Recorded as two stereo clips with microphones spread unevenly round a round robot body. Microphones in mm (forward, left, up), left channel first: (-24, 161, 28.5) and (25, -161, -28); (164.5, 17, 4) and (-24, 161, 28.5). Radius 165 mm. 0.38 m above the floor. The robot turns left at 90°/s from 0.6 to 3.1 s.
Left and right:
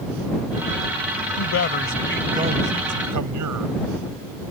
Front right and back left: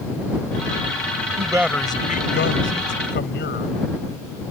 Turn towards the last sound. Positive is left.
turn(degrees=-75)